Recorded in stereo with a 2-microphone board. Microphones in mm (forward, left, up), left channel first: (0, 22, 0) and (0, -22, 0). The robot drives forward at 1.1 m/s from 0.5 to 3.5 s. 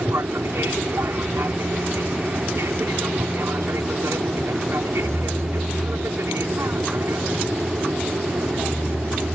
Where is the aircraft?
70° right (ahead or behind).